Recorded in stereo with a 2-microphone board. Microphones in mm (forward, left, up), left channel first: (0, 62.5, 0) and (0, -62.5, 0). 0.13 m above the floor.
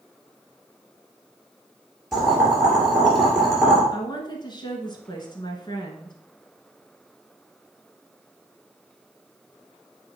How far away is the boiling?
About 2.5 m.